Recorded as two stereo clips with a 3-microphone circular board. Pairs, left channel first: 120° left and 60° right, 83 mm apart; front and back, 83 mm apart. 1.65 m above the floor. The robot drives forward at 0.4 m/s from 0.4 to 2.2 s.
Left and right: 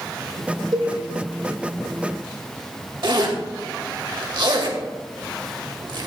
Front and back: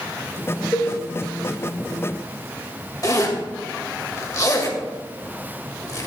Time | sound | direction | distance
0.7 | a cowbell | 45° right | 2 m
3.0 | a zipper | 45° right | 1.8 m